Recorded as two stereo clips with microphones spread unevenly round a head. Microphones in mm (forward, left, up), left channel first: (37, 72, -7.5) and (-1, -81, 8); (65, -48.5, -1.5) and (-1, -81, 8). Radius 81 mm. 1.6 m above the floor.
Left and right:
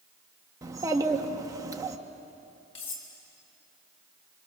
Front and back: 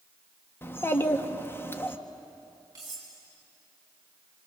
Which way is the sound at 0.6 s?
35° right.